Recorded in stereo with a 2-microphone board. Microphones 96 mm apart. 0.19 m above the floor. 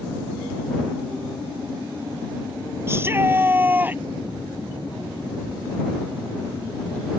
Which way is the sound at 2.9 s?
25° right (ahead or behind).